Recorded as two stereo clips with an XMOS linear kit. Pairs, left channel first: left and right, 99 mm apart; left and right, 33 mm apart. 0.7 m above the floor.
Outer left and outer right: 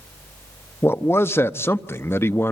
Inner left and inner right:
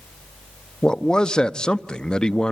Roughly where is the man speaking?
Left.